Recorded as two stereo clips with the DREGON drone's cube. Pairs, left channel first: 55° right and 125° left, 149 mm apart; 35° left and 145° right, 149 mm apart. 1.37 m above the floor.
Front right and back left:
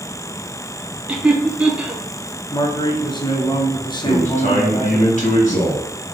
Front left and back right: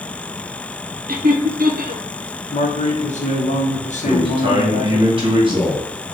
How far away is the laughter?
About 0.7 m.